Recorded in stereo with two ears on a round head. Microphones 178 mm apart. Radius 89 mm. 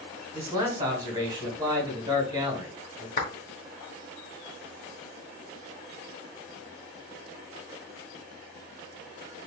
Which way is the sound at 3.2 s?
40° left (ahead or behind).